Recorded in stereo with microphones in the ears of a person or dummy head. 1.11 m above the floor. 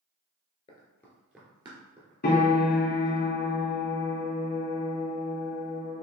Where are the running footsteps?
30° left (ahead or behind), 1.2 m; by 3.2 s 55° right (ahead or behind), 3 m.